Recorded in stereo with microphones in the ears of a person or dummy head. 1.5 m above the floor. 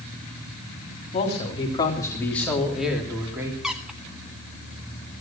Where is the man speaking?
35° left (ahead or behind), 3.5 m; by 3.5 s 15° right (ahead or behind), 3.5 m.